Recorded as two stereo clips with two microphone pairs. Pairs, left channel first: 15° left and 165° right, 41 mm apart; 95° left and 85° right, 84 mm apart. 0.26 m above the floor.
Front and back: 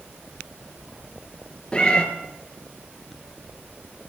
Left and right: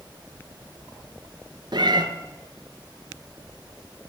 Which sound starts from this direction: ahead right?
A cat meowing, at 1.7 s.